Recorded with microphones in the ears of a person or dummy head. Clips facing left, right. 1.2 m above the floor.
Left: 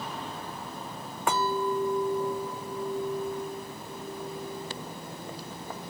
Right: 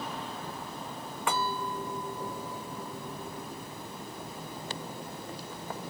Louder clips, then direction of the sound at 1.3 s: Left 6 dB; 35° left (ahead or behind).